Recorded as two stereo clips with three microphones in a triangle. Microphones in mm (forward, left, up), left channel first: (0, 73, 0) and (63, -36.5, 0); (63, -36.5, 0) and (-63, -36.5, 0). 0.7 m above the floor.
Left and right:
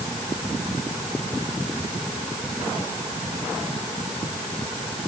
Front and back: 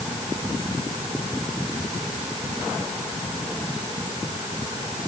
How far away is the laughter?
No laughter in this recording.